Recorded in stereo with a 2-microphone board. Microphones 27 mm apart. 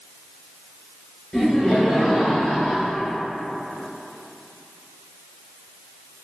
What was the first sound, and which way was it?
Laughter, 20° left (ahead or behind).